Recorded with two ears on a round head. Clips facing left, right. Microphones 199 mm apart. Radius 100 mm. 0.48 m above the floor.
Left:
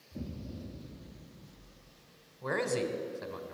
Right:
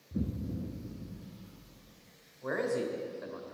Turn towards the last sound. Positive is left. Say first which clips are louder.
# even
turn(degrees=45)  # may be behind; listen again after turning